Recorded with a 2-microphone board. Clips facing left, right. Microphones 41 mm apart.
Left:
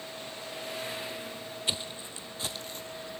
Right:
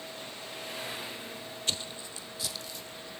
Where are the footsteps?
15° left (ahead or behind), 0.8 m; by 3.1 s 40° left (ahead or behind), 1.6 m.